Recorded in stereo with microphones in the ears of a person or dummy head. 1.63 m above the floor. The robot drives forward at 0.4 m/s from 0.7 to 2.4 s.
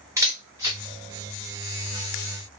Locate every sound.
0.2 s a camera shutter: 15° right (ahead or behind), 1.2 m; by 2.6 s 20° right (ahead or behind), 0.9 m